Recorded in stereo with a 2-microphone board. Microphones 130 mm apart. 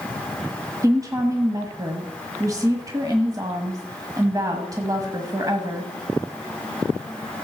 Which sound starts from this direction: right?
A woman speaking, at 0.8 s.